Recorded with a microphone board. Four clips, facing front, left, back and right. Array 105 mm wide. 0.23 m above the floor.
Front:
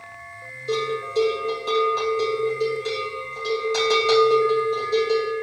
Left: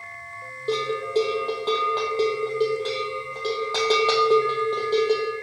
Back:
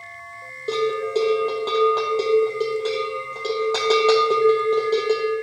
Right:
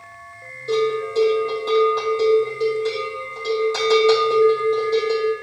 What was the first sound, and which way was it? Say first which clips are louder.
A bell: right 4 dB, back 3 dB; 150° left.